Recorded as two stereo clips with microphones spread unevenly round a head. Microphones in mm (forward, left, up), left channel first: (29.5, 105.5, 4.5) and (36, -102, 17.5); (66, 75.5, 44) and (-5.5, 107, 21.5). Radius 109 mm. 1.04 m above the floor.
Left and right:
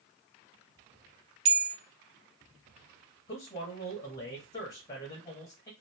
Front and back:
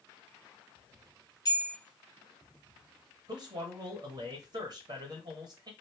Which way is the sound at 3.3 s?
155° left.